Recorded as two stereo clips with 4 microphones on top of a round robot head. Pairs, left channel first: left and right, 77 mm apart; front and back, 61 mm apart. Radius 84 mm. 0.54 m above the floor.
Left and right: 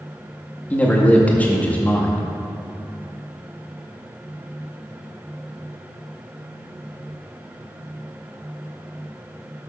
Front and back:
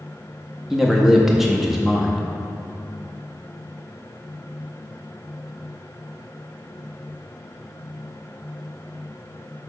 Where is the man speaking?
105° left, 0.8 m.